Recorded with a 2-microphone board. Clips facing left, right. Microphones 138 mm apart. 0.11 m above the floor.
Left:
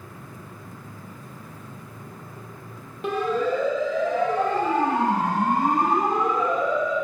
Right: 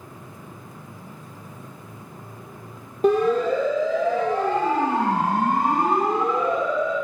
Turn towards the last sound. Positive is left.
turn(degrees=-30)  # may be behind; listen again after turning